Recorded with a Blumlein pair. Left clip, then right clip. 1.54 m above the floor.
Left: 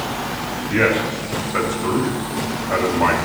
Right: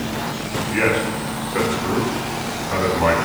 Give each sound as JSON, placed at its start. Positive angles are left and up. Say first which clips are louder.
{"t": 0.7, "sound": "a man speaking", "louder": "left 2 dB", "azimuth_deg": 50, "distance_m": 5.5}